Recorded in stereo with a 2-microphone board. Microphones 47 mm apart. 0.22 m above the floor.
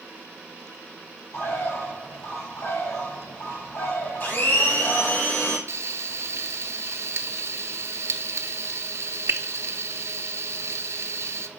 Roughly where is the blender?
Left.